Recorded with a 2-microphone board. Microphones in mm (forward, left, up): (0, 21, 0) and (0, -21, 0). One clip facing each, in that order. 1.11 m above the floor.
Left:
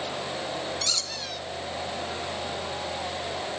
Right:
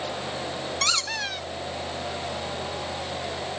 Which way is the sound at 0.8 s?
60° right (ahead or behind).